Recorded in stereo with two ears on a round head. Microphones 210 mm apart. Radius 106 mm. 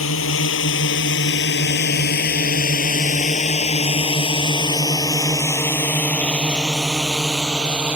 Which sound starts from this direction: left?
A drone, at 0.0 s.